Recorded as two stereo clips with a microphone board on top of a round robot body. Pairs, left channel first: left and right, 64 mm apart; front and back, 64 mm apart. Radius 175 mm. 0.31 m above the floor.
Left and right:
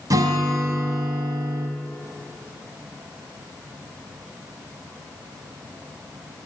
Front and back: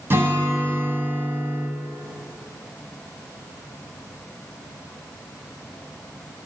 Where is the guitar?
120° right, 0.7 m.